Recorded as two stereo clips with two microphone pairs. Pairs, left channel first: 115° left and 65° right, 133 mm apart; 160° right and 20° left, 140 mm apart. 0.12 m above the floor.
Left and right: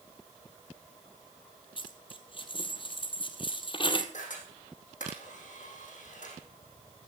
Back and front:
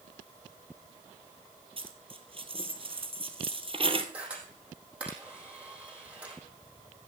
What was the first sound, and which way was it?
A dropped coin, 65° left.